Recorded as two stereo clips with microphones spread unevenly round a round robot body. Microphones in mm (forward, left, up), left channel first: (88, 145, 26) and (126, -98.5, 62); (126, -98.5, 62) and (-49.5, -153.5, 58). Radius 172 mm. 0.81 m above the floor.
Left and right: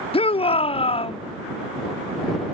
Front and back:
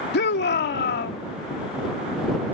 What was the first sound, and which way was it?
A shout, 35° left.